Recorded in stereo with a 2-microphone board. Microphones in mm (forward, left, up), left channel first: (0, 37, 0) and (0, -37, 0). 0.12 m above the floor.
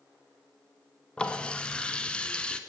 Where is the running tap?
15° left (ahead or behind), 1.0 m.